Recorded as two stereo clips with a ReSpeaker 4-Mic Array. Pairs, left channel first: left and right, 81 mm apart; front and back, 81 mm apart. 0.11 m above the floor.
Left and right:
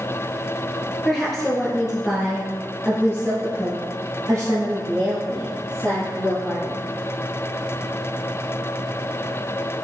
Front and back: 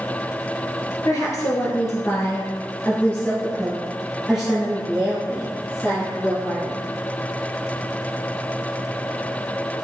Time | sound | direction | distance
1.1 | a woman speaking | 10° left | 1.8 m